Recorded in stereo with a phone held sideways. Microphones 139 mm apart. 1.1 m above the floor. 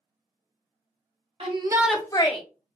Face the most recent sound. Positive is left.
turn(degrees=40)  # may be behind; listen again after turning